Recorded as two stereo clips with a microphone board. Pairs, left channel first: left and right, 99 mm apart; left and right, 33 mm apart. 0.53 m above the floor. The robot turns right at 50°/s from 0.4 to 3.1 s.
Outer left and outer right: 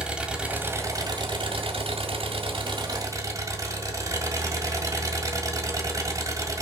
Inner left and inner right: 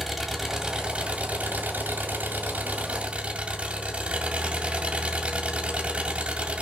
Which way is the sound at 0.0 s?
170° right.